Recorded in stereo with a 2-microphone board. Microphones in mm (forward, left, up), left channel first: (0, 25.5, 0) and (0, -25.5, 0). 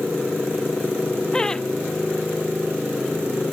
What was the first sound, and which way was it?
Laughter, 15° left (ahead or behind).